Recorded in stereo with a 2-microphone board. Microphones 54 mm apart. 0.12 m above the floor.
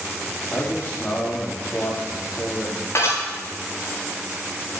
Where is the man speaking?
35° left (ahead or behind), 6.5 m.